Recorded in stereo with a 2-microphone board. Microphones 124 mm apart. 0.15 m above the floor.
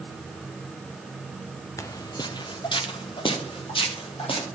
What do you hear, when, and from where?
1.8 s footsteps: 25° left (ahead or behind), 0.6 m; by 4.5 s 45° left (ahead or behind), 3 m